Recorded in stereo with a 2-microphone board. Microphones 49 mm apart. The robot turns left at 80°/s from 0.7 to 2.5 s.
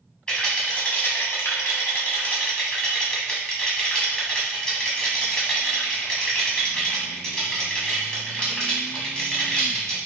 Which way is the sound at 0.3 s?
20° left (ahead or behind).